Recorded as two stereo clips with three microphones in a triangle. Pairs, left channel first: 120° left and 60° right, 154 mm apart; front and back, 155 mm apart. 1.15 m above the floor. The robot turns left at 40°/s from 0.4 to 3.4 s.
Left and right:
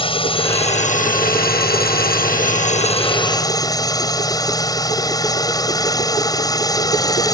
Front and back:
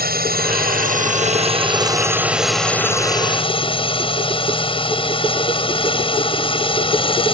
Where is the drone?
175° left; by 7.4 s 55° left.